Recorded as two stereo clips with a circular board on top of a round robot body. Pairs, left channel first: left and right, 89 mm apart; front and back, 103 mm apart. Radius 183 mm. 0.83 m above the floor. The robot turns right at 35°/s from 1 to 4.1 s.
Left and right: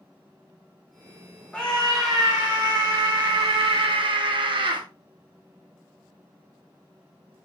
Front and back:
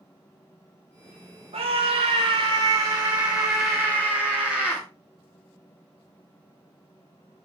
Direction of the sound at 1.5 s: 170° left.